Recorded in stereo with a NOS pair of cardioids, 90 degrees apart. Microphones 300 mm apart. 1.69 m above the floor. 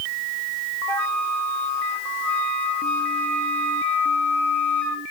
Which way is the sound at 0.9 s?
5° left.